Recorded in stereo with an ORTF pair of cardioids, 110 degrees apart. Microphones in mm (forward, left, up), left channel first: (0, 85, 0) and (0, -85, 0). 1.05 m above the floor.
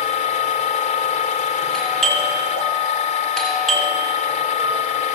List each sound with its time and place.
0.0 s a machine running: 45° left, 3.5 m
1.7 s a doorbell: 5° left, 8.5 m